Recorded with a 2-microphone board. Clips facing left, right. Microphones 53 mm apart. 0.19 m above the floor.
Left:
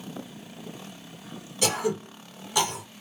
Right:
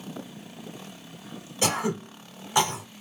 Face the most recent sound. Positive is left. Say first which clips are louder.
# even
turn(degrees=-30)  # may be behind; listen again after turning